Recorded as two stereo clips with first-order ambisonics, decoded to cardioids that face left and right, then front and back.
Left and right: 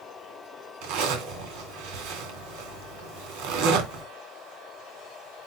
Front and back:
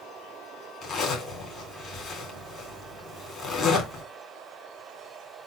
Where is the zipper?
70° right, 3 m.